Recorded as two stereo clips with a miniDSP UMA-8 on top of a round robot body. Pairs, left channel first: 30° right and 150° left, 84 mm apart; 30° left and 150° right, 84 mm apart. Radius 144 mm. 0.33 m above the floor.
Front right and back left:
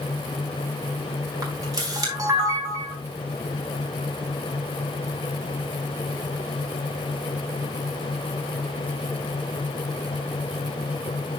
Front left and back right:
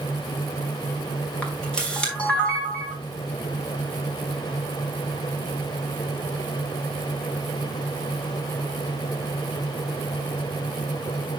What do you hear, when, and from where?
1.4 s a camera shutter: 105° left, 4 m